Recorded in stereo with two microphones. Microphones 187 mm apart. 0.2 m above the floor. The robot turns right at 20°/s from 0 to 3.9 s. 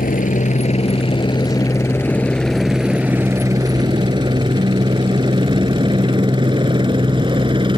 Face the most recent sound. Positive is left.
turn(degrees=-25)  # may be behind; listen again after turning